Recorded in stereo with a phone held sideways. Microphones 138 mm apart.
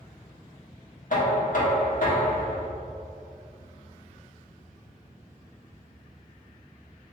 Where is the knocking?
65° left (ahead or behind), 1.2 m.